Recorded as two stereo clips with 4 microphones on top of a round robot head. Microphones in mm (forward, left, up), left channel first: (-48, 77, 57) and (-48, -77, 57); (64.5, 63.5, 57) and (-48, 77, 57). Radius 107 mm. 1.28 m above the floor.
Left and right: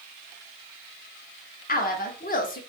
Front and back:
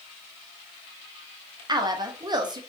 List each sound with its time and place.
1.7 s a woman speaking: 120° left, 0.8 m